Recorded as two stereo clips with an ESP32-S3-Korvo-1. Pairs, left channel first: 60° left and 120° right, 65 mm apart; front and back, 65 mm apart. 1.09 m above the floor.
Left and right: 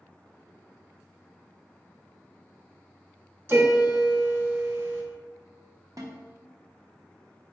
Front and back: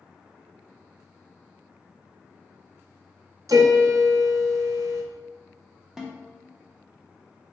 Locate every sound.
3.5 s a piano: 170° right, 0.6 m
6.0 s a snare drum: 100° right, 0.7 m